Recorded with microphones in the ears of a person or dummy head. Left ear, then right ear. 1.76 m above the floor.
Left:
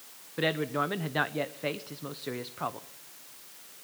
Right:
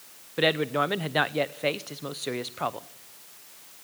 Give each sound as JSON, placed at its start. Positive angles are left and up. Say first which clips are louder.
{"t": 0.4, "sound": "a man speaking", "louder": "right 5 dB", "side_deg": -15, "distance_m": 0.8}